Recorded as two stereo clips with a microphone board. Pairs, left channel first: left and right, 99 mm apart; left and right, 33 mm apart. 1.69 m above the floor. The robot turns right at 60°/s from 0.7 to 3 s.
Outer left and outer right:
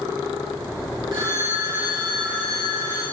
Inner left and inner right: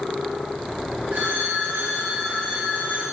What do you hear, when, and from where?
1.1 s a phone ringing: 55° right, 2.5 m; by 3.0 s 60° left, 2.5 m